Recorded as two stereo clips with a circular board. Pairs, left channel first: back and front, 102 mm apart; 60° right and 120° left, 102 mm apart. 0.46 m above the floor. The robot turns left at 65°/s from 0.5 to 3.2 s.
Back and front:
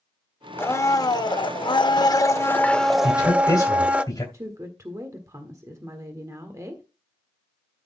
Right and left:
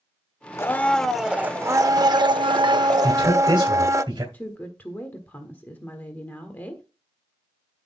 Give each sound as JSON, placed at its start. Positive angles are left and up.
{"t": 0.6, "sound": "a blender", "azimuth_deg": -115, "distance_m": 0.6}
{"t": 3.0, "sound": "a man speaking", "azimuth_deg": 150, "distance_m": 2.0}
{"t": 4.3, "sound": "a woman speaking", "azimuth_deg": -5, "distance_m": 1.5}